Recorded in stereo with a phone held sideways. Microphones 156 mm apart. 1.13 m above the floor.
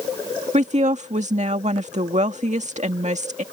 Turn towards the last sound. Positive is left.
turn(degrees=-50)  # may be behind; listen again after turning